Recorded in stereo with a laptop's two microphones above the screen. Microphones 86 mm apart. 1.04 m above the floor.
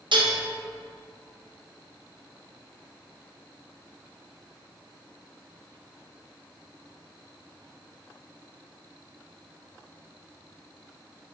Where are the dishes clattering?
80° right, 0.5 m.